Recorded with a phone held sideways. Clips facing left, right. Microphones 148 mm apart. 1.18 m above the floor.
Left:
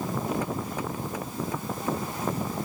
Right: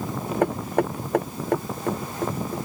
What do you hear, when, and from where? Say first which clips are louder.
0.4 s knocking: right 8 dB; 60° right (ahead or behind)